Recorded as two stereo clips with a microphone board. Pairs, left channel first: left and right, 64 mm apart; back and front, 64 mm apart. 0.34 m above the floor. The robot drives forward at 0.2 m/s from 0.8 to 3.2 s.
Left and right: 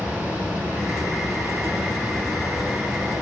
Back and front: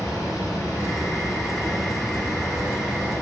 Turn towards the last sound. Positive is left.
turn(degrees=-165)